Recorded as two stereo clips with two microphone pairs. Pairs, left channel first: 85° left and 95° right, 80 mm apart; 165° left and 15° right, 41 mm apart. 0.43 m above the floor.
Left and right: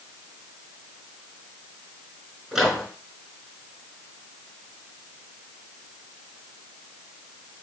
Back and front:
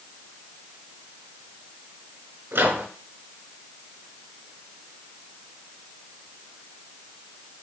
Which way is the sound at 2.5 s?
15° right.